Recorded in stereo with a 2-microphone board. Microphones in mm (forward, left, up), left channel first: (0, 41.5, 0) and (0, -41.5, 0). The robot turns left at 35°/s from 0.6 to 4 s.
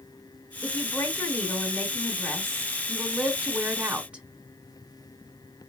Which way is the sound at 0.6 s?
20° left (ahead or behind).